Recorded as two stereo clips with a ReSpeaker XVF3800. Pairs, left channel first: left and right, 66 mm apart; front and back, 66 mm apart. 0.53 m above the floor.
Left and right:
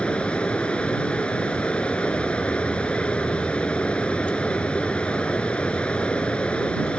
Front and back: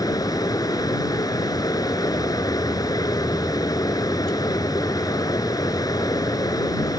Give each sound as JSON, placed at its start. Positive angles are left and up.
{"t": 0.0, "sound": "running water", "azimuth_deg": 15}